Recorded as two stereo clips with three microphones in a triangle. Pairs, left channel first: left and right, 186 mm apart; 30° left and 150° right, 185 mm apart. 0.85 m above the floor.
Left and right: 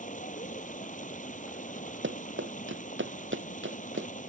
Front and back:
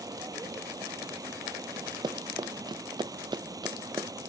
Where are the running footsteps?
80° right.